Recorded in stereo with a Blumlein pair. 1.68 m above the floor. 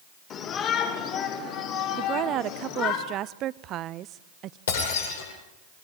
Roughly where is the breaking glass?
Ahead left.